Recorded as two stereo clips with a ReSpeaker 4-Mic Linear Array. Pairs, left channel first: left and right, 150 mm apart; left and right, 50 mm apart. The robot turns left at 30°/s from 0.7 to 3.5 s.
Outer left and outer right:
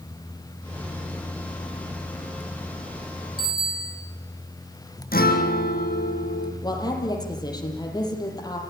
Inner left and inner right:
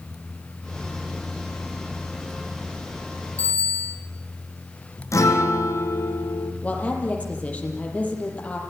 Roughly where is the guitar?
Left.